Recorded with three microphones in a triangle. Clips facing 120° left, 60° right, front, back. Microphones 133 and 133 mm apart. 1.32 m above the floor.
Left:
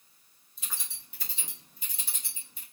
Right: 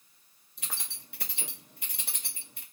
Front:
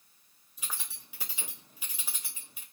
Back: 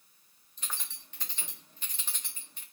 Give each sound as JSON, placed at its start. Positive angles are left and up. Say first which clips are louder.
{"t": 0.6, "sound": "keys jangling", "louder": "right 2 dB, even", "azimuth_deg": -80, "distance_m": 1.0}